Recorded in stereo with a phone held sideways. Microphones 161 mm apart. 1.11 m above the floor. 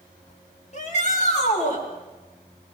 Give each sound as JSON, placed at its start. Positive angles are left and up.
{"t": 0.7, "sound": "a shout", "side_deg": 50, "distance_m": 8.0}